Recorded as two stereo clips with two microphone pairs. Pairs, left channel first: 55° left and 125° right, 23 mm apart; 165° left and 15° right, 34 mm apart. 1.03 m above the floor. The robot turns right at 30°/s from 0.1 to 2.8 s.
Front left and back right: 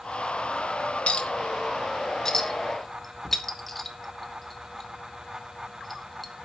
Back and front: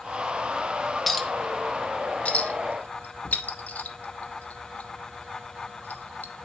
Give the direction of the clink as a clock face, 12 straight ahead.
9 o'clock.